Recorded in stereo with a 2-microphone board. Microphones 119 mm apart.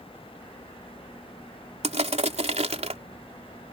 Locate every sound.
1.8 s crushing: 70° right (ahead or behind)